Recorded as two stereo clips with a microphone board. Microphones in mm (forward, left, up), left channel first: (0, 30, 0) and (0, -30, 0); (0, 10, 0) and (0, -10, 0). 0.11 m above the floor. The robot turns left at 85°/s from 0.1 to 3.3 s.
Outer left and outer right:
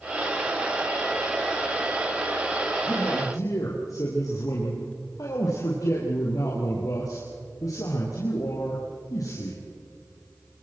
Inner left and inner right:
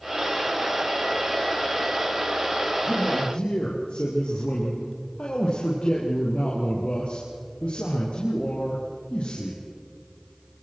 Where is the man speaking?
125° left, 3.5 m; by 9.6 s 85° left, 3.5 m.